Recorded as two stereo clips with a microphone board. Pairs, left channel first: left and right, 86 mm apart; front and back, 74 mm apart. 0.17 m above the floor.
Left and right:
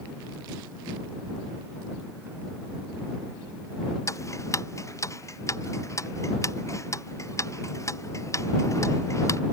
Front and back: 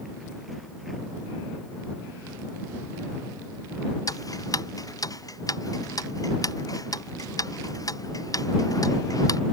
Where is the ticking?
35° left.